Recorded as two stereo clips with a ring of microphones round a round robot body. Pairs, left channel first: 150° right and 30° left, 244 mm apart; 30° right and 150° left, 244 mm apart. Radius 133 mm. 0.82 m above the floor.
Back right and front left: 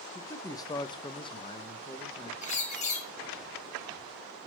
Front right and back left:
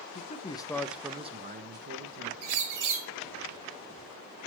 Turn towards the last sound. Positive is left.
turn(degrees=150)